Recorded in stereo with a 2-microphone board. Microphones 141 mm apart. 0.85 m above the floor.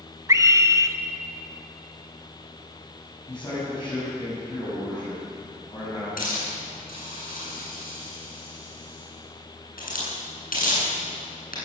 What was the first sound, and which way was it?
A scream, 25° right (ahead or behind).